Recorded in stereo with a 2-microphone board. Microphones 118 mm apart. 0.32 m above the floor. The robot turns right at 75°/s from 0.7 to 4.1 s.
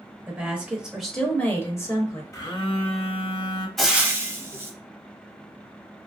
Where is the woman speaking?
10° right (ahead or behind), 0.9 m; by 2.2 s 30° left (ahead or behind), 0.9 m.